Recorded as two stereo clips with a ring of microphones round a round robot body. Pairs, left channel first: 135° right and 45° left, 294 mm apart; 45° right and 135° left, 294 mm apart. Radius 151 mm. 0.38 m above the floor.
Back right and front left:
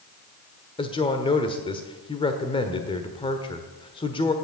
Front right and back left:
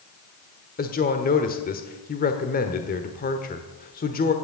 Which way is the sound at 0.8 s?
75° right.